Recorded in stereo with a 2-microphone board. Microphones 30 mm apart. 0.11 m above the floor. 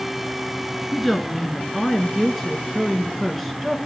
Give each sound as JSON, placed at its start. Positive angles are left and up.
{"t": 0.9, "sound": "a woman speaking", "side_deg": 5, "distance_m": 1.2}